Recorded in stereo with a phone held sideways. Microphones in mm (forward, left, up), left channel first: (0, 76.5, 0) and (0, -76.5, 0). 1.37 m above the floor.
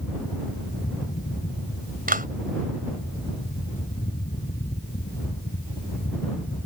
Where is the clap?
70° right (ahead or behind).